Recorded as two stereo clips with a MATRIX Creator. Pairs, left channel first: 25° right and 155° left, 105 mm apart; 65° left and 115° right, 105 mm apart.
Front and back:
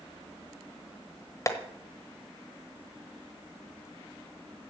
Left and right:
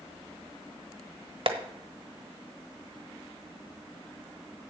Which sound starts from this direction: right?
Tapping, at 1.5 s.